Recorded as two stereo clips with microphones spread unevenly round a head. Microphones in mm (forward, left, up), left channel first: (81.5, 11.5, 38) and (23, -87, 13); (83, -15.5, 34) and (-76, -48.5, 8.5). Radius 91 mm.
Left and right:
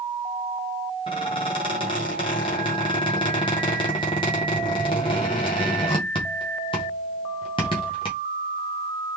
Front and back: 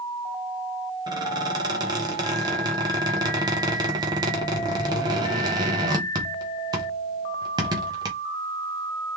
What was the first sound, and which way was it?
A squeak, 120° left.